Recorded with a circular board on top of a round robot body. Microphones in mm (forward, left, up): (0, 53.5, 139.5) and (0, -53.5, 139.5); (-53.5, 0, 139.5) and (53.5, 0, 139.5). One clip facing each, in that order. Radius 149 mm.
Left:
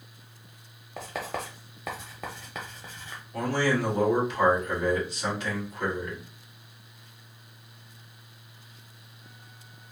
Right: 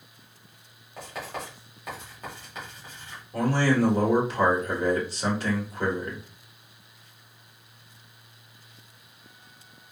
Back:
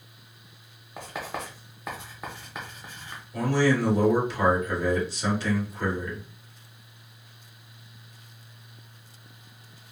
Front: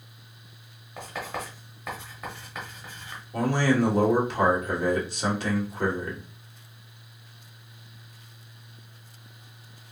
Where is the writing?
100° left, 0.8 m.